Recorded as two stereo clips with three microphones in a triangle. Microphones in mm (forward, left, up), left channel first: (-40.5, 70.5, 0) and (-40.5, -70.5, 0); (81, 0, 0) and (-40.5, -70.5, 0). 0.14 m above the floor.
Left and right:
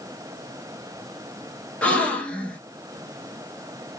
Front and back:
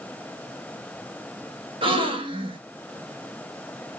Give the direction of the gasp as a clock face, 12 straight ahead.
6 o'clock.